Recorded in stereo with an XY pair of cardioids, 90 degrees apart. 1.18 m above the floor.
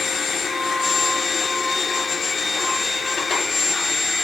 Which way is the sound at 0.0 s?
50° left.